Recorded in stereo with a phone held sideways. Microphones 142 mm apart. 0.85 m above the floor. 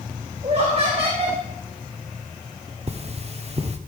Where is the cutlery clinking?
45° right (ahead or behind), 1.1 m.